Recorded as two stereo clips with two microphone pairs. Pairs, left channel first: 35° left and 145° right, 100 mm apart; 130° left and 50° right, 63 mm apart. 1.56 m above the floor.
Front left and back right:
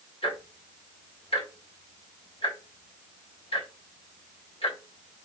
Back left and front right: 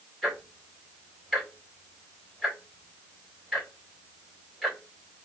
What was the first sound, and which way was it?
Ticking, 45° left.